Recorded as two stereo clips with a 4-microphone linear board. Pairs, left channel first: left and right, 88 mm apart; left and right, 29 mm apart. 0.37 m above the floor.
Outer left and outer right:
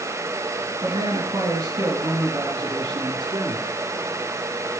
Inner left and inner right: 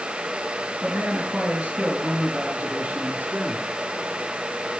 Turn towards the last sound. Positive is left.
turn(degrees=-75)  # may be behind; listen again after turning